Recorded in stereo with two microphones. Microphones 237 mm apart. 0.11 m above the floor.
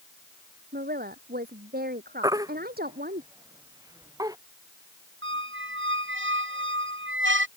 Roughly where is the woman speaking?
Right.